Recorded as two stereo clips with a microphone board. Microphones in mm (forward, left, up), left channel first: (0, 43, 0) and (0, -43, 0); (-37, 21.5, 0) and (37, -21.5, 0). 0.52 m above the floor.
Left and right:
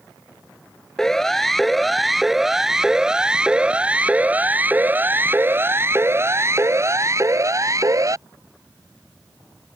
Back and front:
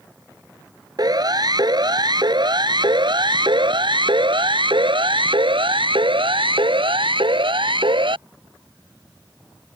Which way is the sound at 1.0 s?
5° left.